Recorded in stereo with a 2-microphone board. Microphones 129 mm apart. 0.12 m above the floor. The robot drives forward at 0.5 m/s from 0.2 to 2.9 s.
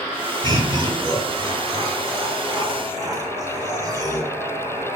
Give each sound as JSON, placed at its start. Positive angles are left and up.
{"t": 0.4, "sound": "laughter", "side_deg": -30, "distance_m": 1.8}